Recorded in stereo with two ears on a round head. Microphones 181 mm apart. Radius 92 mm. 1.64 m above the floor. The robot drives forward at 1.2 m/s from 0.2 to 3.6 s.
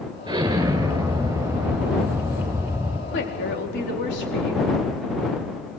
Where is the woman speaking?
65° left (ahead or behind), 4 m; by 4.8 s 60° left (ahead or behind), 4.5 m.